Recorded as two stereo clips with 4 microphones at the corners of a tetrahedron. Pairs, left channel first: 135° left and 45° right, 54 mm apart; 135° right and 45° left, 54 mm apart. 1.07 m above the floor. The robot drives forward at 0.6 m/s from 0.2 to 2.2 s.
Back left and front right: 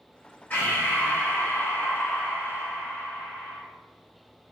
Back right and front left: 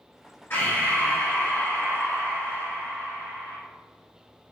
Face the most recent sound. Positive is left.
turn(degrees=180)